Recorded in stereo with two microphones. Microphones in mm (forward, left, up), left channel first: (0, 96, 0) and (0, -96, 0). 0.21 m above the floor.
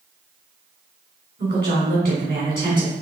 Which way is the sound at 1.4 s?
50° right (ahead or behind).